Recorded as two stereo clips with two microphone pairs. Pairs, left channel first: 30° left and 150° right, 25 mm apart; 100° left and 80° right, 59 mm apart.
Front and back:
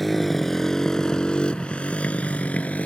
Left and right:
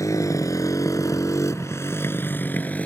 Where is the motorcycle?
120° left; by 2.9 s 35° left.